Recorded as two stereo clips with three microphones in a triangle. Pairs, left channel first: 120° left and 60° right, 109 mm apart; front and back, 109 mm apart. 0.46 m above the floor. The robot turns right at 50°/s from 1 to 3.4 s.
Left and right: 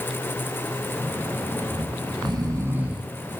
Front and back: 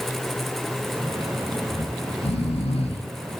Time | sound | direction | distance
1.7 | snoring | 45° right | 3 m